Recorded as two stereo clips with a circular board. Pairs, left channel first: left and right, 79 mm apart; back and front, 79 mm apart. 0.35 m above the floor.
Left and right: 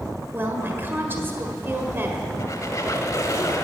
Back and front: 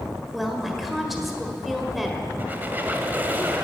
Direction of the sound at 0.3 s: 85° right.